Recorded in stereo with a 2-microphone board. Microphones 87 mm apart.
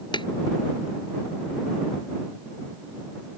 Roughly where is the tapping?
Left.